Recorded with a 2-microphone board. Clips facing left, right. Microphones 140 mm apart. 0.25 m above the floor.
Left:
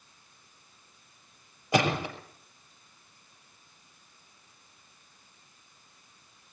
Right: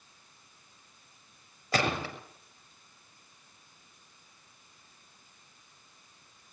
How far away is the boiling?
I don't hear boiling.